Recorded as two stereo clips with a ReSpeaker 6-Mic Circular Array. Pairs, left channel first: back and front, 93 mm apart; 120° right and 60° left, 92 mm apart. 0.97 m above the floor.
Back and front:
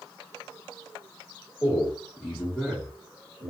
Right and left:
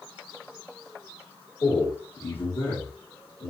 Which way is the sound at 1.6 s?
85° right.